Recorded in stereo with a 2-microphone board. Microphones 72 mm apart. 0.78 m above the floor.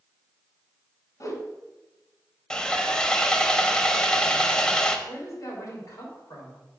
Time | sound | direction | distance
1.2 | a whoosh | 55° left (ahead or behind) | 1.2 m
2.5 | sawing | 10° left (ahead or behind) | 0.6 m
5.1 | a woman speaking | 50° left (ahead or behind) | 3 m